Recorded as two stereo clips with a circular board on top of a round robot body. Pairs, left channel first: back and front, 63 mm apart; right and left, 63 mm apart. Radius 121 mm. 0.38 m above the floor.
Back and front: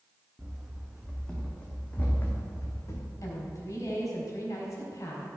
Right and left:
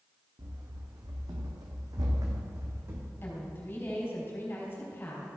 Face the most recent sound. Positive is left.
turn(degrees=-145)